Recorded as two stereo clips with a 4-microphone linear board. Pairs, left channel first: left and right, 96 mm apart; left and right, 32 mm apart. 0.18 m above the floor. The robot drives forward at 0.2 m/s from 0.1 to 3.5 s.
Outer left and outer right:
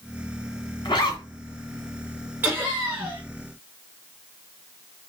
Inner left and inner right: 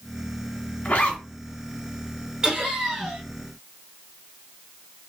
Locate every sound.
0.8 s a zipper: 50° left (ahead or behind), 1.7 m
2.4 s laughter: 20° right (ahead or behind), 1.7 m